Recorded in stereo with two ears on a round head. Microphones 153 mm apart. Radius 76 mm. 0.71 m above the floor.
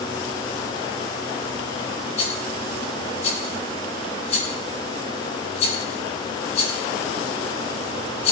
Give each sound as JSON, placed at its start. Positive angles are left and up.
{"t": 2.2, "sound": "a rattle", "side_deg": 35, "distance_m": 6.0}